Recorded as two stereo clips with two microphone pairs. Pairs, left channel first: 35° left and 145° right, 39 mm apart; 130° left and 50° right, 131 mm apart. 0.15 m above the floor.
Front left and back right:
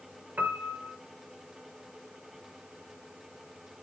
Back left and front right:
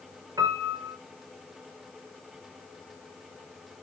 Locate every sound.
0.4 s a piano: 110° right, 2 m